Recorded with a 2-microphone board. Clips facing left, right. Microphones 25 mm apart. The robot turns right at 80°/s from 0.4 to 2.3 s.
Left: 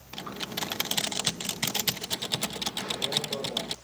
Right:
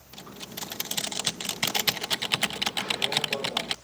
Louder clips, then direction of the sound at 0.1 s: Left 5 dB; 110° left.